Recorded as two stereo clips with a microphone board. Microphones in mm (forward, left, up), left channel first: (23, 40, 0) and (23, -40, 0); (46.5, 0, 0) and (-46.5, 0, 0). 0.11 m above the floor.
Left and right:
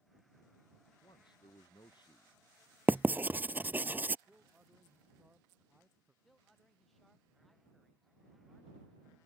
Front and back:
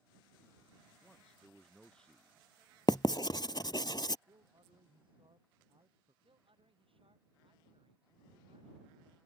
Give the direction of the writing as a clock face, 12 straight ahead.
1 o'clock.